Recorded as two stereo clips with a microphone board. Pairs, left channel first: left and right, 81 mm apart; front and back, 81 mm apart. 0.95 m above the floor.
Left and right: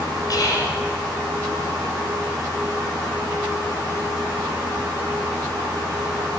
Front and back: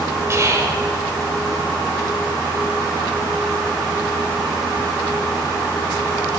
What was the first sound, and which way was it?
Whispering, 125° left.